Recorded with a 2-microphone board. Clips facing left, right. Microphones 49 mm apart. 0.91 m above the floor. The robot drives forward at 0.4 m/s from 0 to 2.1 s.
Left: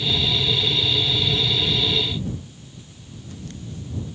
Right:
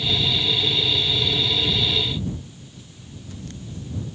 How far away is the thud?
I don't hear a thud.